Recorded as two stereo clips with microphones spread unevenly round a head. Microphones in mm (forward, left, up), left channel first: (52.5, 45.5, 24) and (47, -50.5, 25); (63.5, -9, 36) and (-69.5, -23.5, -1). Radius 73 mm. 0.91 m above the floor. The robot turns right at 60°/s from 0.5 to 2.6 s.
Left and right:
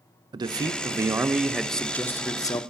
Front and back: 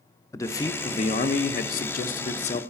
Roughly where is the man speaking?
Right.